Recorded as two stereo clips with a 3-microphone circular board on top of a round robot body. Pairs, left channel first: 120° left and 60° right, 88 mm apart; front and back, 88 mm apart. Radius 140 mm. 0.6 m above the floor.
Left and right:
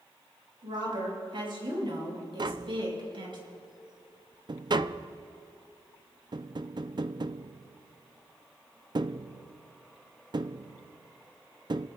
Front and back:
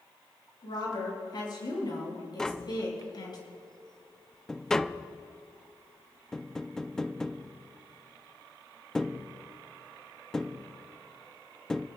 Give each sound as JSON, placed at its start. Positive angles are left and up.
{"t": 0.6, "sound": "a woman speaking", "azimuth_deg": -35, "distance_m": 7.5}
{"t": 2.4, "sound": "tapping", "azimuth_deg": -85, "distance_m": 0.6}